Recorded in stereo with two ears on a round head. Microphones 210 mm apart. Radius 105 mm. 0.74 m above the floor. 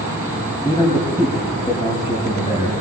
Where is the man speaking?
25° left (ahead or behind), 6 m.